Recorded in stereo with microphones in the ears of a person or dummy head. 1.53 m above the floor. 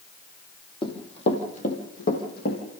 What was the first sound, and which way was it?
Running footsteps, 30° left (ahead or behind).